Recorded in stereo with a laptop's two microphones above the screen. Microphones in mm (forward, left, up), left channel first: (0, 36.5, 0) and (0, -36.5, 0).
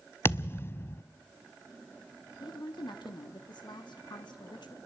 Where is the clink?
I don't hear a clink.